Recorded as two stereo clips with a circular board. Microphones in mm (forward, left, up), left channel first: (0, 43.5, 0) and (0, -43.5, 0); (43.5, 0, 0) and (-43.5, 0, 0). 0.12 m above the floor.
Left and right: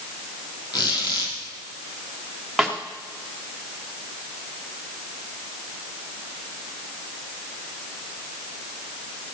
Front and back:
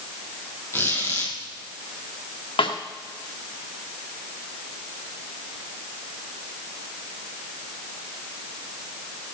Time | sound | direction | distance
0.7 | a squeak | 60° left | 3 m
2.6 | a snare drum | straight ahead | 2 m